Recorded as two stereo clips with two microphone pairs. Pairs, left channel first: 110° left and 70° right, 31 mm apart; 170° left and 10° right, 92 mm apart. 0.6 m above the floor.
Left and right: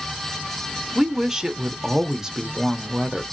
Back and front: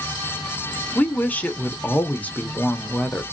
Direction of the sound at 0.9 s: 125° right.